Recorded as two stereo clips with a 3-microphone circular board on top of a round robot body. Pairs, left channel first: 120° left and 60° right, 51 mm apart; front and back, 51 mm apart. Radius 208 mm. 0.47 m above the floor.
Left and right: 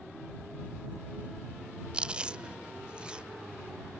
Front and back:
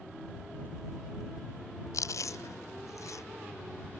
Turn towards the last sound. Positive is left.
turn(degrees=10)